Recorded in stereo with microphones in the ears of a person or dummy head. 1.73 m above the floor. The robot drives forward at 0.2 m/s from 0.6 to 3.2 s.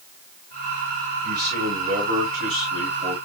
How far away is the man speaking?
About 1.4 m.